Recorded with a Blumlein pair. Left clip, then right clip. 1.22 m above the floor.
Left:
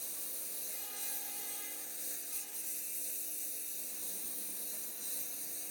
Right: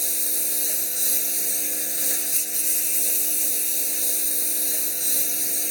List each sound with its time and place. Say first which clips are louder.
0.0 s a lawn mower: right 18 dB; 40° right